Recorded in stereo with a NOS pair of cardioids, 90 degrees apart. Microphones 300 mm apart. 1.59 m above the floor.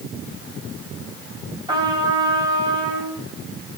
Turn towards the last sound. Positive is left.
turn(degrees=-15)